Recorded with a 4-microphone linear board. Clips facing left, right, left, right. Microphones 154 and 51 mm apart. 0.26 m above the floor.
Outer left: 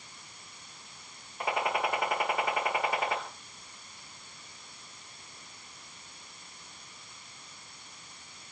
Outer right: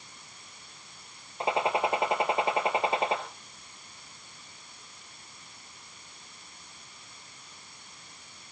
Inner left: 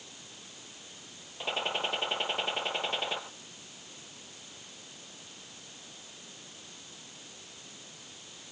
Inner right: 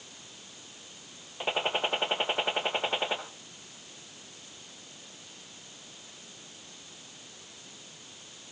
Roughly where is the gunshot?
Right.